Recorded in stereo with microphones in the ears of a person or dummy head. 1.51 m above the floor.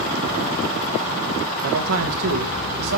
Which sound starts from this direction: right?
A man speaking, at 1.6 s.